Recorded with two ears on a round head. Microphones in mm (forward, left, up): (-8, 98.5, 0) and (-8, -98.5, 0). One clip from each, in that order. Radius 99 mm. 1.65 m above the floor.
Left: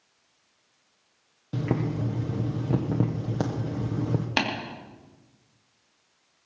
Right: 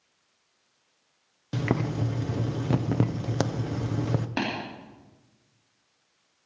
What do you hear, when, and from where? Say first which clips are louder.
1.5 s boiling: right 1 dB; 65° right (ahead or behind), 0.7 m
4.4 s tapping: left 5 dB; 60° left (ahead or behind), 2.5 m